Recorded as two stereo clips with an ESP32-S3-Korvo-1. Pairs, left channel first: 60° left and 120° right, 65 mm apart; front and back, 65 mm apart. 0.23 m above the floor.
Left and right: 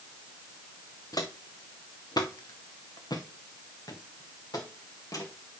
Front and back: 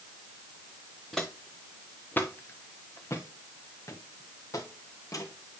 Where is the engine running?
No engine running in this recording.